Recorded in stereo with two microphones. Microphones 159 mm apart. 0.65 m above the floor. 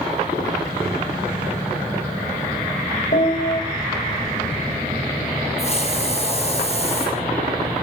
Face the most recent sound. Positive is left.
turn(degrees=40)  # may be behind; listen again after turning